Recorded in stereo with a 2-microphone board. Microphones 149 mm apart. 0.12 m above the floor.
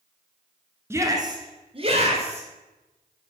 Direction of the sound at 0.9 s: 15° right (ahead or behind).